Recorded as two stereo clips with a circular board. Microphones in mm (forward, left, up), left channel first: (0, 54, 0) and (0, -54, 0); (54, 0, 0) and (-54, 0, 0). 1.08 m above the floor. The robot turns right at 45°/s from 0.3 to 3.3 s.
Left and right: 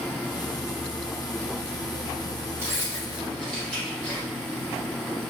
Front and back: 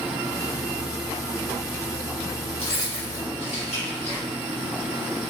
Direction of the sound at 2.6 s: 25° right.